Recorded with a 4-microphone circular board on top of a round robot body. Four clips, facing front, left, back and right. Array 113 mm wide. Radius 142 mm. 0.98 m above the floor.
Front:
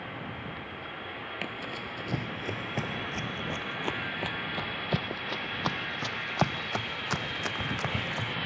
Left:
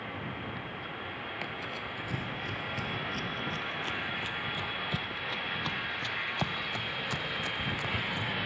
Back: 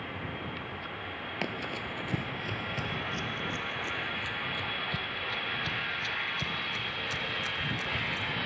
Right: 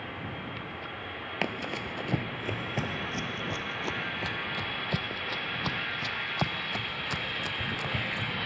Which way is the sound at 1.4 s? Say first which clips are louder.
Right 5 dB, back 4 dB; 105° right.